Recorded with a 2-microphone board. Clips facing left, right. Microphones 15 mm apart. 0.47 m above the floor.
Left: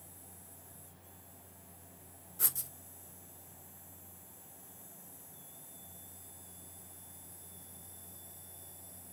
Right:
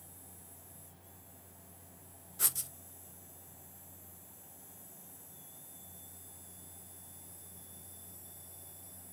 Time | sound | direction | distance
2.4 | writing | 20° right (ahead or behind) | 0.5 m